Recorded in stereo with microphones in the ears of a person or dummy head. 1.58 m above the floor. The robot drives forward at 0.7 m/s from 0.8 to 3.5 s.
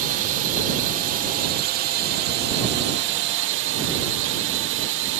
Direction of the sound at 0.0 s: 45° right (ahead or behind).